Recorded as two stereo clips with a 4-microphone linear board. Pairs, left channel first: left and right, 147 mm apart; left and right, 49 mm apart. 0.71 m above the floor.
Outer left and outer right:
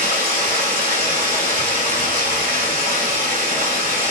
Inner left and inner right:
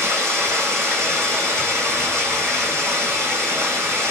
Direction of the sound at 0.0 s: 80° right.